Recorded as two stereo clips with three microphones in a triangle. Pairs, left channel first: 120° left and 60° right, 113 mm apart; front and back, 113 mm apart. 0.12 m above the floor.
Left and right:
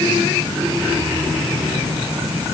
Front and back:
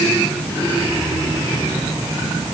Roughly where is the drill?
I don't hear a drill.